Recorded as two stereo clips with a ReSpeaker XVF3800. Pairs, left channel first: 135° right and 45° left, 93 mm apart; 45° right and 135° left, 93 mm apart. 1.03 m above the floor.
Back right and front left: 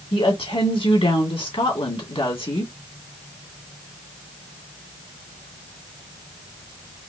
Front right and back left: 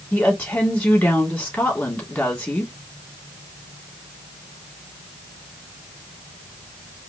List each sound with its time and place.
0.1 s a woman speaking: 120° right, 2.5 m